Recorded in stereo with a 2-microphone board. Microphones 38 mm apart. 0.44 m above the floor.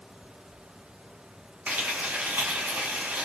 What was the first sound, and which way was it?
Frying, 55° right (ahead or behind).